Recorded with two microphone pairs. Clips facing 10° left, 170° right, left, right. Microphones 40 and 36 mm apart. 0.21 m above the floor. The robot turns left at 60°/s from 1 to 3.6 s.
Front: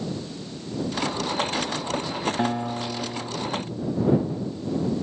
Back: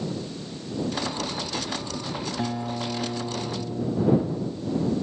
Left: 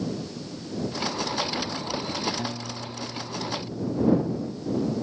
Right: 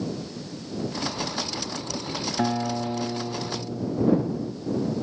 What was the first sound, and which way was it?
A guitar, 50° right.